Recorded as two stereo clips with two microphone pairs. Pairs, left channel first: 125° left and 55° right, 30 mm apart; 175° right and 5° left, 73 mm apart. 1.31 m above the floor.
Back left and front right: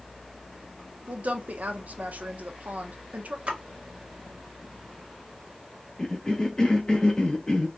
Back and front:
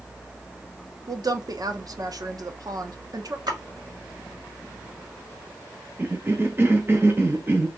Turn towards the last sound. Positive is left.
turn(degrees=65)